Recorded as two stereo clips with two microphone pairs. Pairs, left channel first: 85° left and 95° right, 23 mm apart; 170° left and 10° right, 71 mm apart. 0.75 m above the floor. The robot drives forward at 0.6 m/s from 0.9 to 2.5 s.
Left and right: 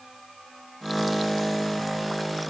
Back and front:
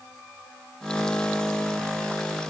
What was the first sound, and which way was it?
Only background noise.